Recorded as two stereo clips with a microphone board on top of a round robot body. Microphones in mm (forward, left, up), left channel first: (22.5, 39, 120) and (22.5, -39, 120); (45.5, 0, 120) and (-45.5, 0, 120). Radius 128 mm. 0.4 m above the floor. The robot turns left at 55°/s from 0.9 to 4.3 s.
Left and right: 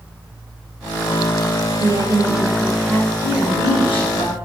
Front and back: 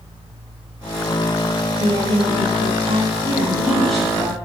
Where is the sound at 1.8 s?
130° right, 2.5 m; by 3.1 s 160° left, 2.5 m.